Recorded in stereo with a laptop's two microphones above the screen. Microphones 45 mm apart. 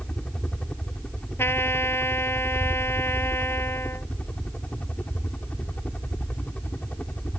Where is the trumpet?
75° left (ahead or behind).